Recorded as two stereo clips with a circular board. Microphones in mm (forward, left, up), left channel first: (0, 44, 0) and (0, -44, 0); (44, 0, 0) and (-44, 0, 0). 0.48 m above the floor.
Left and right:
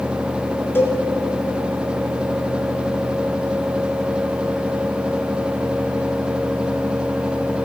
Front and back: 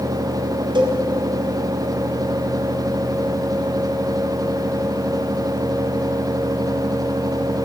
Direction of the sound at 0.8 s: 155° left.